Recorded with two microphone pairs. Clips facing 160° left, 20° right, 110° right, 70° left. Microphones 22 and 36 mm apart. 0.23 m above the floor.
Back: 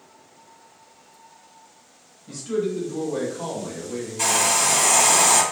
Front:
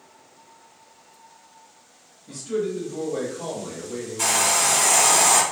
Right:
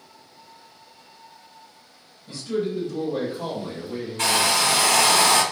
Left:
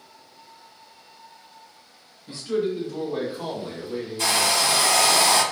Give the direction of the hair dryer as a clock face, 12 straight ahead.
4 o'clock.